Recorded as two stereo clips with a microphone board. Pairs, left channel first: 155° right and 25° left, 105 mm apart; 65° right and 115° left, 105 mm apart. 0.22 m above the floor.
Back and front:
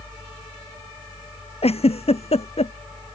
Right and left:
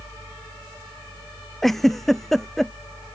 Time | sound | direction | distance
1.6 | a giggle | 155° right | ?